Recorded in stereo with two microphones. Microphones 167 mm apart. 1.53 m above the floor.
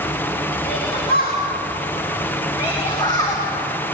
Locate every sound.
0.7 s a shout: 70° left (ahead or behind), 2.5 m; by 3.4 s 20° left (ahead or behind), 2.5 m